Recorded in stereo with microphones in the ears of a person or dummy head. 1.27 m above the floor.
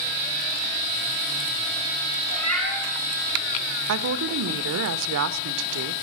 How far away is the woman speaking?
About 0.6 m.